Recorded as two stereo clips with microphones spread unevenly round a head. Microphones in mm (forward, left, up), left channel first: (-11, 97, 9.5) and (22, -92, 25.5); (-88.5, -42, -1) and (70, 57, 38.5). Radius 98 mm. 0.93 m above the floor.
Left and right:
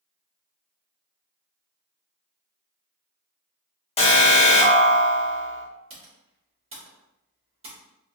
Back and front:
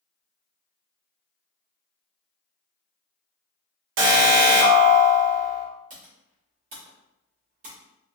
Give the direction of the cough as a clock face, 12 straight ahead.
No cough in this recording.